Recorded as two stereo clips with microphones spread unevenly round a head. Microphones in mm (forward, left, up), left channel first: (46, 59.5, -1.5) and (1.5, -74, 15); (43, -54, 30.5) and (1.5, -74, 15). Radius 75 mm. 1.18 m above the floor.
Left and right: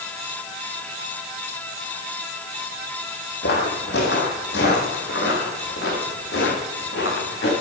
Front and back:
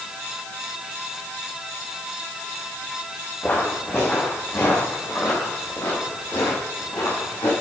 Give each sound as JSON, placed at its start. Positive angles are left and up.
{"t": 3.4, "sound": "footsteps", "azimuth_deg": 90, "distance_m": 2.5}